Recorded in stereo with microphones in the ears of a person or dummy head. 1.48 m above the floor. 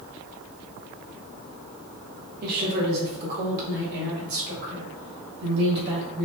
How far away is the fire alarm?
I don't hear a fire alarm.